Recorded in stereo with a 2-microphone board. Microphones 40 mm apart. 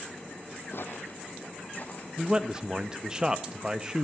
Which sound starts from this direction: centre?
A man speaking, at 2.2 s.